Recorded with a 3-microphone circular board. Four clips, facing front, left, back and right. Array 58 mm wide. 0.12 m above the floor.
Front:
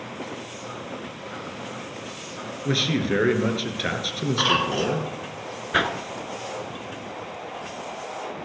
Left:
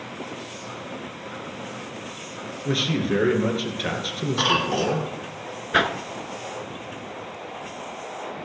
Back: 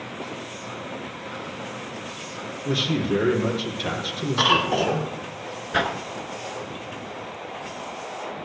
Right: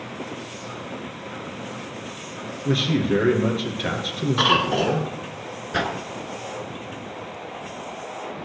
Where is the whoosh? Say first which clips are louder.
Left 4 dB, front 1 dB; 65° left, 0.7 m.